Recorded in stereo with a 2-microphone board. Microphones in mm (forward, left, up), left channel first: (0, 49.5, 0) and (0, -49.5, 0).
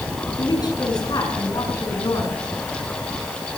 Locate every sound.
0.4 s a woman speaking: 45° left (ahead or behind), 7 m